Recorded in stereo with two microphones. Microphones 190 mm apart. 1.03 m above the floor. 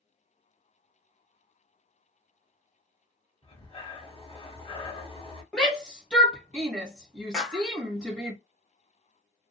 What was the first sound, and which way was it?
Breathing, 30° left (ahead or behind).